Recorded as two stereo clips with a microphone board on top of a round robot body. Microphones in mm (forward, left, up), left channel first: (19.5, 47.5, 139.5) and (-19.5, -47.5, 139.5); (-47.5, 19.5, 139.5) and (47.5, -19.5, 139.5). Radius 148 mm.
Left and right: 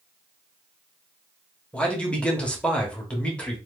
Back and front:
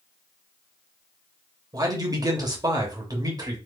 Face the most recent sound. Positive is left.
turn(degrees=-5)